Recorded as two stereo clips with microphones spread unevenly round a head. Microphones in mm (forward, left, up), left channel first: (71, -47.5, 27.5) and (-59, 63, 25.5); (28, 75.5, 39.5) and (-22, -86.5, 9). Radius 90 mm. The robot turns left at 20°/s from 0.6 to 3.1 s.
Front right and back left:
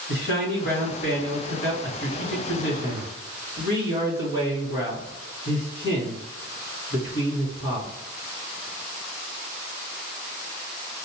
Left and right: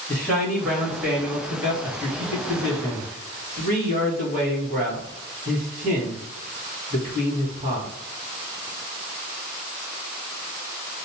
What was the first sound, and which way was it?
A man speaking, 10° right.